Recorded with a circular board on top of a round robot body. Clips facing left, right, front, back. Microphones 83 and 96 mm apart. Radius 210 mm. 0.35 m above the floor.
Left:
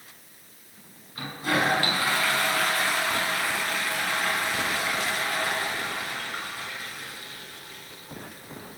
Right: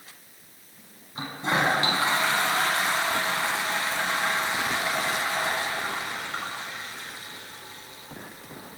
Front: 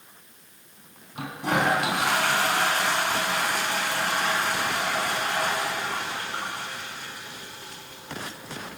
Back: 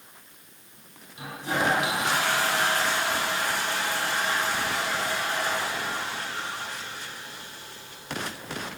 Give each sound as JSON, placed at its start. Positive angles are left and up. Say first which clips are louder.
{"t": 1.1, "sound": "a toilet flushing", "louder": "even, front 3 dB", "azimuth_deg": -25, "distance_m": 5.5}